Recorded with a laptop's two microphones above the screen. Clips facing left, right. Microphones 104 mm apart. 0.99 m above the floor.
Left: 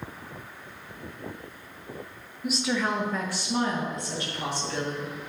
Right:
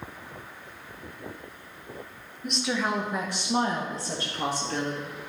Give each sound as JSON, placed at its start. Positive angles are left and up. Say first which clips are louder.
{"t": 2.4, "sound": "a woman speaking", "louder": "left 1 dB", "side_deg": 5, "distance_m": 0.7}